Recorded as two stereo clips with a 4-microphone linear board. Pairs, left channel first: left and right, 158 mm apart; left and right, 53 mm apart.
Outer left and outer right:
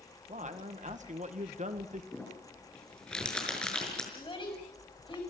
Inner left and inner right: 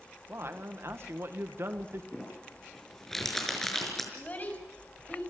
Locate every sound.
0.3 s a man speaking: 50° right (ahead or behind), 1.6 m
2.1 s crumpling: 5° left (ahead or behind), 5.5 m
4.1 s a child speaking: 35° left (ahead or behind), 7 m